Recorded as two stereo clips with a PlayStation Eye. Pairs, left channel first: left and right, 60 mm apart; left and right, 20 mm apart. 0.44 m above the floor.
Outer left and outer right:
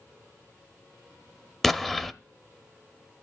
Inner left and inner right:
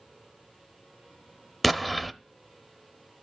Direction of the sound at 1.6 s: 5° left (ahead or behind).